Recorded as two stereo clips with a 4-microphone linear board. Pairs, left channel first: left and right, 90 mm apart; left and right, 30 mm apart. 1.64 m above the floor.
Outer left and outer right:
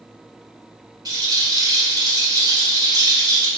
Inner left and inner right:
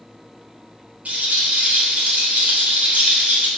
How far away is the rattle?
About 2.5 m.